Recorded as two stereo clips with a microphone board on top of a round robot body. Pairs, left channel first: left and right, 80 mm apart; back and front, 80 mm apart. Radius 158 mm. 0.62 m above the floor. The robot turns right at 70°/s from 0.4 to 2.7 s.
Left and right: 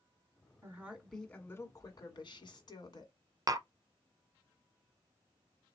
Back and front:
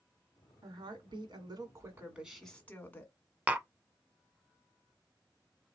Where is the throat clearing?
No throat clearing in this recording.